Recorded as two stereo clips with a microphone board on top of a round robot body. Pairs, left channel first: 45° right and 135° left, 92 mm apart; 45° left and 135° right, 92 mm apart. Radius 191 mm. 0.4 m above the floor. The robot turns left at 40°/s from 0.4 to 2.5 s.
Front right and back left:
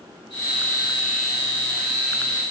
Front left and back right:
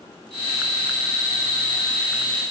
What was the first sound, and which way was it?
Only background noise.